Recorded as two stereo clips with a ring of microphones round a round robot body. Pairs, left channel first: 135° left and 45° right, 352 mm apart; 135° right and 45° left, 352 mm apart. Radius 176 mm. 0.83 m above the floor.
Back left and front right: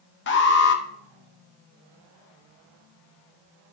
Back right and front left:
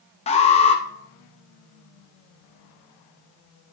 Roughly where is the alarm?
Behind.